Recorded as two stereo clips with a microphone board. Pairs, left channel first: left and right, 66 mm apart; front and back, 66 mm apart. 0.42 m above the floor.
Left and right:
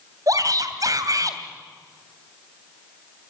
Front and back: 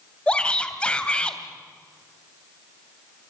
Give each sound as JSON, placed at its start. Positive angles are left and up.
{"t": 0.3, "sound": "a shout", "azimuth_deg": -70, "distance_m": 2.5}